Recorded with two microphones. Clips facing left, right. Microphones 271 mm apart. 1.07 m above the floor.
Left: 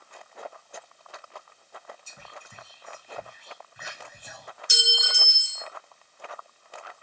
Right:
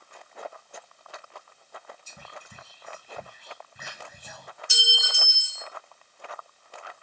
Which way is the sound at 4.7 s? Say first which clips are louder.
Left 4 dB; 20° left (ahead or behind).